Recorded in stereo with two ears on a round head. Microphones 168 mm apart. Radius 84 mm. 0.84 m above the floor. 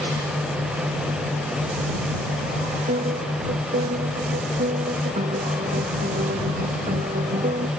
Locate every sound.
2.9 s a piano: 35° right (ahead or behind)